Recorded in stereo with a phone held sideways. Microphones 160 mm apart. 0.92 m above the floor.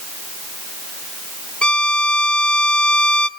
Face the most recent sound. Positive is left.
turn(degrees=5)  # may be behind; listen again after turning